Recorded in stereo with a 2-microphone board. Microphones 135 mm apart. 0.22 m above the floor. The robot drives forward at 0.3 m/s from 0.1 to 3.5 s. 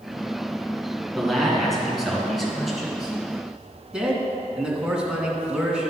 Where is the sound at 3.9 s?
5° right (ahead or behind), 2 m.